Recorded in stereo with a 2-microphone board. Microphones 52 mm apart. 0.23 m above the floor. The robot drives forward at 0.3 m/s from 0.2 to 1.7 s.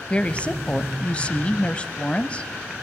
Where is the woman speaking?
25° left (ahead or behind), 1.0 m.